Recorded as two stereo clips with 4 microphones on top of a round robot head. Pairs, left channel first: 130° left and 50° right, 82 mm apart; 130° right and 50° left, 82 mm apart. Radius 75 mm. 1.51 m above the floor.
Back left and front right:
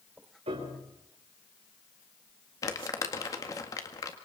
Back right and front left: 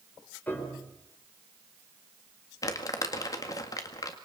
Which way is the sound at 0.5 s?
55° right.